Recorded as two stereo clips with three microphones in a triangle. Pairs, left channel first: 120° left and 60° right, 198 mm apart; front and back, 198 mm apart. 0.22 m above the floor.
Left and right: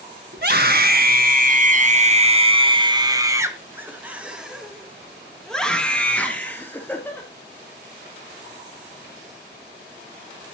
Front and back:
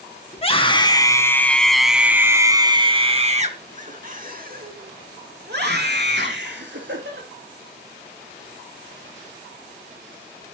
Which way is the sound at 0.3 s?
50° right.